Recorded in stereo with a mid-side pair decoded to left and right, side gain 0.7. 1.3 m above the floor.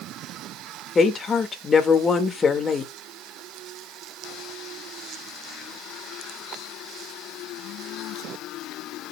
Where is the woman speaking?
25° left, 1.9 m.